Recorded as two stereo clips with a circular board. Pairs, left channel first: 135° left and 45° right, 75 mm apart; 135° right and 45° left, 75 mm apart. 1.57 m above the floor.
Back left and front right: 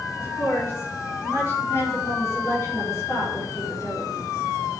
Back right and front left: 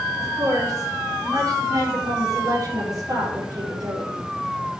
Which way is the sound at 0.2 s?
80° left.